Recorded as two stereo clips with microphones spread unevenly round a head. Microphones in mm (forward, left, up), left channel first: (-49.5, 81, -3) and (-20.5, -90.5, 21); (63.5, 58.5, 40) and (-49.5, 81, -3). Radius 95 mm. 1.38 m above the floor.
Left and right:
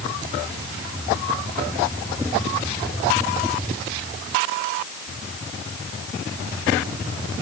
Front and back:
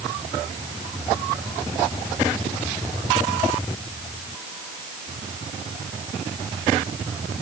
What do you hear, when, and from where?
Only background noise.